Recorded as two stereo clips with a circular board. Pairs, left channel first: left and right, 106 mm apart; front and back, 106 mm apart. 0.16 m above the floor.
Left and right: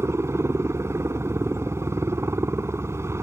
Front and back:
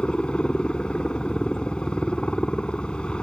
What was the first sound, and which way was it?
A helicopter, 70° right.